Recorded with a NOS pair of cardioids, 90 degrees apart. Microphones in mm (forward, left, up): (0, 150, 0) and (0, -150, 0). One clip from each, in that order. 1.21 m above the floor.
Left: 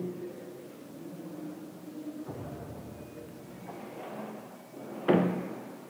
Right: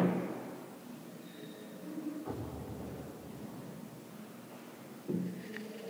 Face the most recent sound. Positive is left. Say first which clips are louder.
# left 1 dB
turn(degrees=-45)